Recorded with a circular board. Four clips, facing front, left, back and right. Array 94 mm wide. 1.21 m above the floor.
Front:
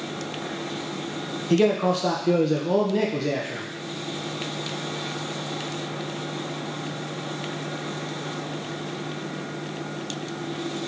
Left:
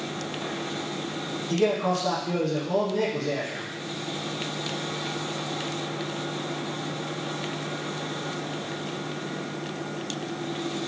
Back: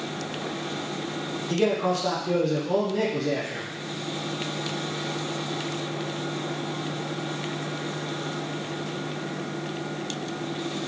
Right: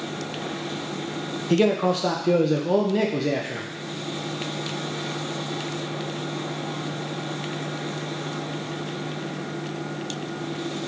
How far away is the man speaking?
About 0.6 m.